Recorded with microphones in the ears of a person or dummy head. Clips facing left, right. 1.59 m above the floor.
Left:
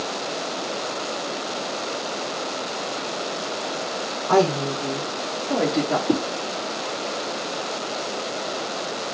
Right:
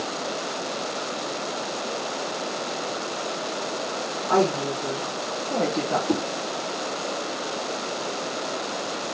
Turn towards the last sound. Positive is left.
turn(degrees=20)  # may be behind; listen again after turning